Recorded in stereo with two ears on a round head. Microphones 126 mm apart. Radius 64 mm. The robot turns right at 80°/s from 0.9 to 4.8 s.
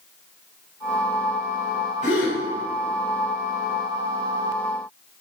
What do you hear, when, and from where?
2.0 s a gasp: 50° left (ahead or behind), 4 m; by 2.4 s 75° left (ahead or behind), 4 m